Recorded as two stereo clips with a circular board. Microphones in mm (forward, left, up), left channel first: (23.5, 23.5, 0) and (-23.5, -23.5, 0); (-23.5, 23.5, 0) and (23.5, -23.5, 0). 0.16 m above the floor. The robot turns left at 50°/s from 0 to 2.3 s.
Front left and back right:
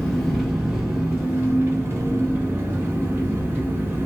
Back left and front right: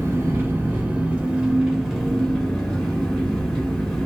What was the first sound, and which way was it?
An engine running, 30° right.